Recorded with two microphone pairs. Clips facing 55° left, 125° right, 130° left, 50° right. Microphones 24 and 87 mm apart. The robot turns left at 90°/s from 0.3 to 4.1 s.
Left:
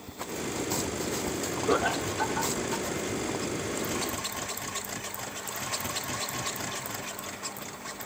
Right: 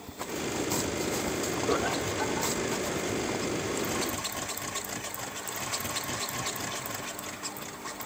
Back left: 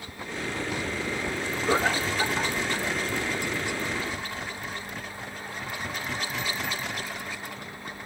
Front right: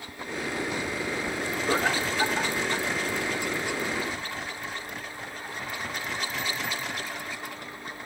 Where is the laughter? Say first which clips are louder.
Left 4 dB, back left 2 dB; 80° left, 0.7 m; by 2.9 s 25° right, 0.7 m.